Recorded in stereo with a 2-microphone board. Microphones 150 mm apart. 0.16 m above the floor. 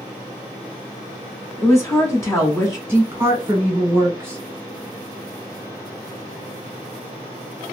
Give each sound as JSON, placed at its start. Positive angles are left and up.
{"t": 1.6, "sound": "a woman speaking", "side_deg": 20, "distance_m": 1.1}
{"t": 2.9, "sound": "a woman speaking", "side_deg": -15, "distance_m": 1.4}